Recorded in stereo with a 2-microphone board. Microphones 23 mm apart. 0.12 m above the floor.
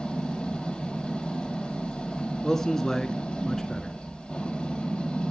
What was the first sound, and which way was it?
An engine running, 50° left (ahead or behind).